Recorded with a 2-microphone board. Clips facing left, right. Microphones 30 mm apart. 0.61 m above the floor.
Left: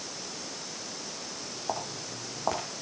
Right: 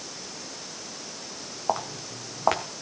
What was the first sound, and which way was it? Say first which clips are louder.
Footsteps: right 7 dB; 55° right (ahead or behind).